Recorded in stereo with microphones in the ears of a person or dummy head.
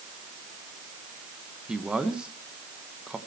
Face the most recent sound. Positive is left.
turn(degrees=0)  # may be behind; listen again after turning